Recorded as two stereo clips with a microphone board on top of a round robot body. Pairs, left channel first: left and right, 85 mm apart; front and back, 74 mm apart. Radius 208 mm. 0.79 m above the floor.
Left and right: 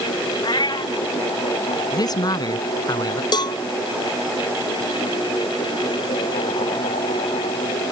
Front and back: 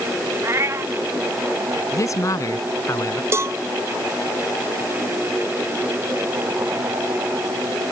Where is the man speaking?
50° left.